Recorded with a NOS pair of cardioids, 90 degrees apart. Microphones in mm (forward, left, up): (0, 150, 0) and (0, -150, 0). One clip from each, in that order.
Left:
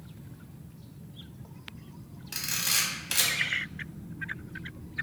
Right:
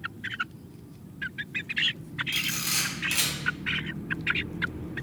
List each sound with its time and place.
2.3 s a camera shutter: 5° left, 0.7 m